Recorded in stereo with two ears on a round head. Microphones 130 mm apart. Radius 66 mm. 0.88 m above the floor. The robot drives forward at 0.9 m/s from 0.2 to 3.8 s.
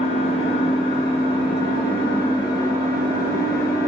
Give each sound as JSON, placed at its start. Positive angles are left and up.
{"t": 0.0, "sound": "an engine running", "side_deg": 45, "distance_m": 4.5}